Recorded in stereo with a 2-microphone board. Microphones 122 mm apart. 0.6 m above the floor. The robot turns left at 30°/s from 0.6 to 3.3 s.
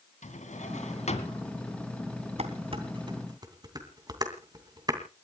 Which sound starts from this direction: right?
Dishes clattering, at 2.4 s.